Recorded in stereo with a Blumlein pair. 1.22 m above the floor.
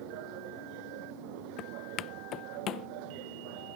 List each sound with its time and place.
0.0 s a machine running: 45° right
1.6 s footsteps: 30° left